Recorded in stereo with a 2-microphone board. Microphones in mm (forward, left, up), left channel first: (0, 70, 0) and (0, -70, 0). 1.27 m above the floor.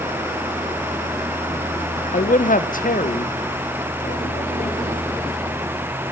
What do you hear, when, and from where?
2.1 s a man speaking: 60° left (ahead or behind), 0.6 m; by 6.1 s 70° left (ahead or behind), 4.5 m